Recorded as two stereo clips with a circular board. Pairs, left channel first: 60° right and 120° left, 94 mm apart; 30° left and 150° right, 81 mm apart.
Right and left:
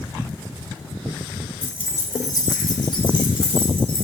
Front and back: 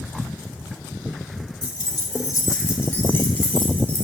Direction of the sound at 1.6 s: 10° left.